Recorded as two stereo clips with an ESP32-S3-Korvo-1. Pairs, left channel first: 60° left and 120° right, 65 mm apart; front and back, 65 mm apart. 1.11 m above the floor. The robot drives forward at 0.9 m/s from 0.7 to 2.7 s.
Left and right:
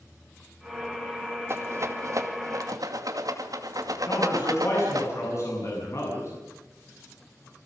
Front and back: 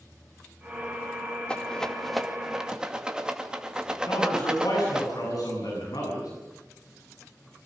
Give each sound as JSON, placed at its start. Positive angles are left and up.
{"t": 1.5, "sound": "a rattle", "azimuth_deg": -75, "distance_m": 2.5}
{"t": 4.1, "sound": "a man speaking", "azimuth_deg": 20, "distance_m": 8.5}